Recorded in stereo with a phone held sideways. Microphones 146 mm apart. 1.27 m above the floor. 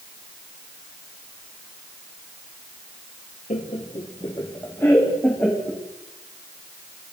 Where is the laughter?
50° left (ahead or behind), 1.2 m; by 5.8 s 5° left (ahead or behind), 2.5 m.